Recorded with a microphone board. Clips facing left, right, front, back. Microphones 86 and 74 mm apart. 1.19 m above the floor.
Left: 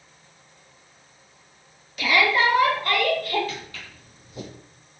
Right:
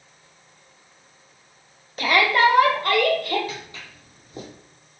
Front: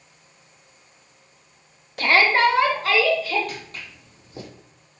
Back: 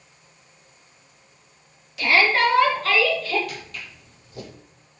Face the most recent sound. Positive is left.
turn(degrees=-55)